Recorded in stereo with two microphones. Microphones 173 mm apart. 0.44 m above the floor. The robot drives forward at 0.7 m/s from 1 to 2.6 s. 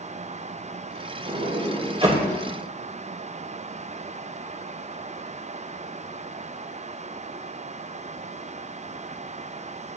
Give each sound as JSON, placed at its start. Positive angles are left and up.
{"t": 1.3, "sound": "a sliding door", "side_deg": -45, "distance_m": 1.4}